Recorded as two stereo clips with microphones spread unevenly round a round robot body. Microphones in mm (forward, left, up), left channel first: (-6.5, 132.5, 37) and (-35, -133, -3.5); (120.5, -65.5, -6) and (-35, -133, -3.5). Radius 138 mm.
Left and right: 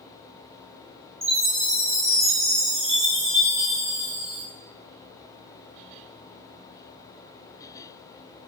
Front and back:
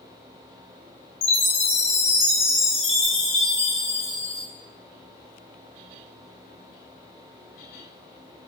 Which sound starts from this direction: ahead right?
A chime, at 1.2 s.